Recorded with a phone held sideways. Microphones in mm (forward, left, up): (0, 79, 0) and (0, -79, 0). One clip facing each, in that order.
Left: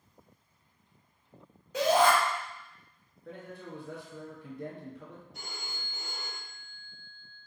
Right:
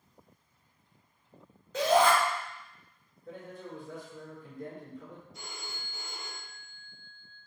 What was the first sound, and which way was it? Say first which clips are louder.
A shout: even; 10° left (ahead or behind).